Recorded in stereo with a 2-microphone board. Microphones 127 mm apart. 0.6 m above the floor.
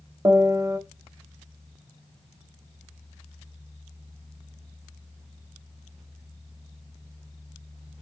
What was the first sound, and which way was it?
A piano, 25° right (ahead or behind).